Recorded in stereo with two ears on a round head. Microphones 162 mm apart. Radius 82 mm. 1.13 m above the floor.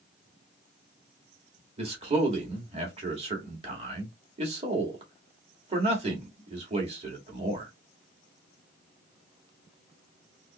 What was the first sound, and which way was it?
A man speaking, 30° right (ahead or behind).